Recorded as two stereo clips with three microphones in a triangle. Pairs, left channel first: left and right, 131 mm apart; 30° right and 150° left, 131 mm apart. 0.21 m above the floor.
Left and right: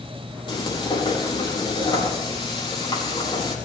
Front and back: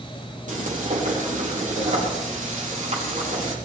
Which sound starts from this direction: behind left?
Frying, at 0.5 s.